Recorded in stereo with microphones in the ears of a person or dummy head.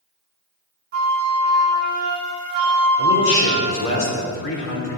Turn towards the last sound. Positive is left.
turn(degrees=65)  # may be behind; listen again after turning